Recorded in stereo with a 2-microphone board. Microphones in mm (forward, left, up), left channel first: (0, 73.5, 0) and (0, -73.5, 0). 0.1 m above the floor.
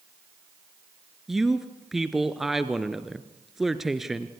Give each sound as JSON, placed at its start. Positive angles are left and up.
{"t": 1.3, "sound": "a man speaking", "side_deg": 0, "distance_m": 1.4}